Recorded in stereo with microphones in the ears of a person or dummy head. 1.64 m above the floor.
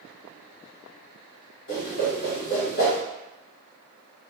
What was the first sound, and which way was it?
A whoosh, 55° left (ahead or behind).